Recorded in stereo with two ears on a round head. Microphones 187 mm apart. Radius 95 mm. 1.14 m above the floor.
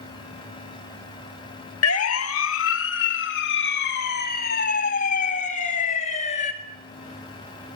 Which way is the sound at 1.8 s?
90° left.